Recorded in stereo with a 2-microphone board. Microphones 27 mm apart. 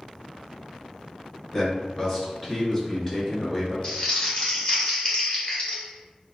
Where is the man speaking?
25° left (ahead or behind), 1.7 m.